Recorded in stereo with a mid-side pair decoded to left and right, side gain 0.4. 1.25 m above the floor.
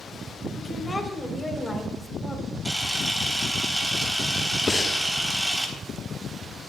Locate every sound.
0.6 s a woman speaking: 25° left, 3 m; by 2.5 s 15° left, 4 m
2.6 s a camera shutter: 10° right, 3 m
4.7 s breathing: 25° left, 1.1 m